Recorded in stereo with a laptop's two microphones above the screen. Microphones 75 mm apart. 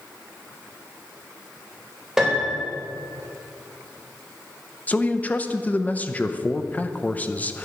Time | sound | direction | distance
2.2 | a piano | 5° right (ahead or behind) | 4 m
4.9 | a man speaking | 20° left (ahead or behind) | 0.6 m